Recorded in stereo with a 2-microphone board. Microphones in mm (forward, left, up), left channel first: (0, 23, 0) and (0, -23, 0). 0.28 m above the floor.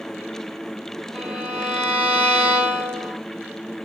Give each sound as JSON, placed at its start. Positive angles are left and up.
{"t": 1.1, "sound": "a violin", "side_deg": -25, "distance_m": 1.7}